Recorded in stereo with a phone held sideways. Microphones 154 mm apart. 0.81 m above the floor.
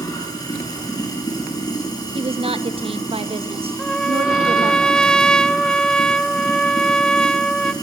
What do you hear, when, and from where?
0.0 s running water: 25° left (ahead or behind), 5.5 m
2.1 s a woman speaking: 40° right (ahead or behind), 1.2 m
3.8 s a trumpet: 5° left (ahead or behind), 0.6 m